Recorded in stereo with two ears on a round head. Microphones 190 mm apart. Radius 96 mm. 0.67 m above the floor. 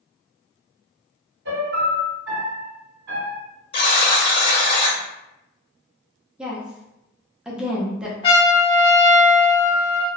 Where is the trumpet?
25° left (ahead or behind), 1.1 m.